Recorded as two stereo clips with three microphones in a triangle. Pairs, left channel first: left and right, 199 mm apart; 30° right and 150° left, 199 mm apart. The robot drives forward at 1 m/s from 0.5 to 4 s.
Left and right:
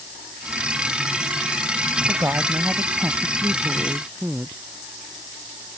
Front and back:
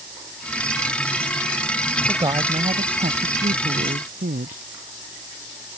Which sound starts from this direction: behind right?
A woman speaking, at 2.1 s.